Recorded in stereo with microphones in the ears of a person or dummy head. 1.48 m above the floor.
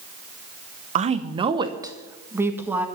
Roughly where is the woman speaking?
Right.